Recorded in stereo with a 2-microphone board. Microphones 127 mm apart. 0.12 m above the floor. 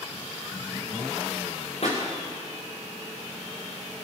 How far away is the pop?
About 5 m.